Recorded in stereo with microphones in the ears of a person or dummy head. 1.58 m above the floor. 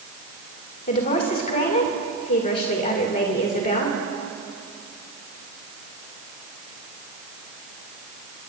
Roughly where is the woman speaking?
Left.